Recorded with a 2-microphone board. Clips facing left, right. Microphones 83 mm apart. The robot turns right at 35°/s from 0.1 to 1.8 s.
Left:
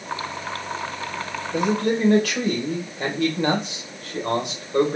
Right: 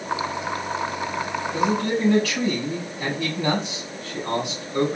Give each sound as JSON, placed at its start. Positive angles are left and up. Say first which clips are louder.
{"t": 1.5, "sound": "a man speaking", "louder": "left 2 dB", "side_deg": 50, "distance_m": 1.7}